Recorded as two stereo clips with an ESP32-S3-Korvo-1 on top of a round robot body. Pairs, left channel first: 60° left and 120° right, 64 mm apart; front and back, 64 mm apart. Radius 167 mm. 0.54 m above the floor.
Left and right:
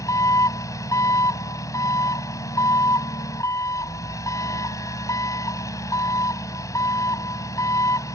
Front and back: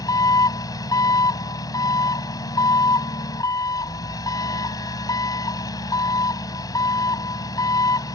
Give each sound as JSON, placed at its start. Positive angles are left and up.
{"t": 0.0, "sound": "an engine running", "azimuth_deg": 25}